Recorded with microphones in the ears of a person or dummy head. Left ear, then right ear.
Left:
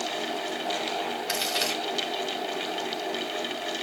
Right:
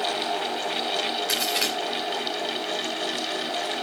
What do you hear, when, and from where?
1.3 s a crack: 15° right (ahead or behind), 3.5 m